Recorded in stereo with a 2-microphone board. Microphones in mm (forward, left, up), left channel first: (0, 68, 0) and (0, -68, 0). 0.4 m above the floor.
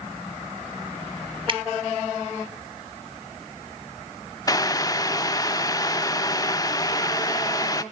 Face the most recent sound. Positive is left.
turn(degrees=25)  # may be behind; listen again after turning